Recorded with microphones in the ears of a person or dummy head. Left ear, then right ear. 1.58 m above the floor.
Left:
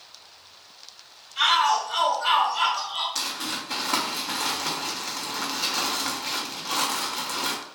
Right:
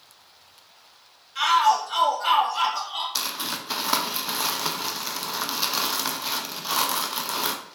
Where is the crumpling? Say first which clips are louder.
Right 1 dB; 60° right (ahead or behind), 0.7 m.